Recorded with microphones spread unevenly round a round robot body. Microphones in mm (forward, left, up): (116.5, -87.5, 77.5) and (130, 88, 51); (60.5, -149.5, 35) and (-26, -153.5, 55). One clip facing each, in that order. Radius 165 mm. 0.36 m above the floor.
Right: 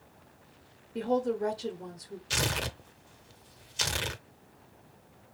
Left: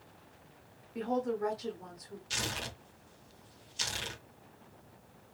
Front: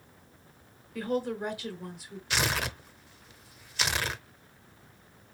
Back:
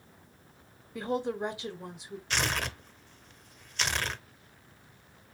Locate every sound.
0.9 s a woman speaking: 110° right, 0.9 m
2.3 s tearing paper: 70° right, 0.7 m